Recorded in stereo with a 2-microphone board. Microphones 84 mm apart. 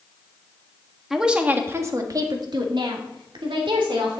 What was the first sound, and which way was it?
A woman speaking, 5° right (ahead or behind).